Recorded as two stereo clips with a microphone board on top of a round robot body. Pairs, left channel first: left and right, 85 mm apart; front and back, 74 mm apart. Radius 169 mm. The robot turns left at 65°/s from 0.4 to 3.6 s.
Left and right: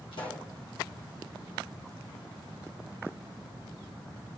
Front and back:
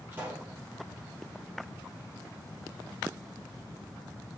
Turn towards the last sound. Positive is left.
turn(degrees=-90)